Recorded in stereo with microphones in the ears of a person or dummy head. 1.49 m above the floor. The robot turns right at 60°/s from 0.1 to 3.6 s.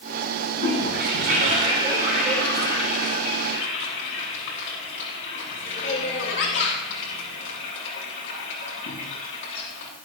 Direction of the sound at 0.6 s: 80° right.